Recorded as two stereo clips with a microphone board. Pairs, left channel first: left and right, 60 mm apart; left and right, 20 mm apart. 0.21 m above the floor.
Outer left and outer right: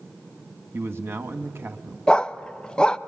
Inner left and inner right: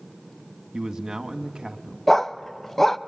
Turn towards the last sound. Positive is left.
turn(degrees=15)  # may be behind; listen again after turning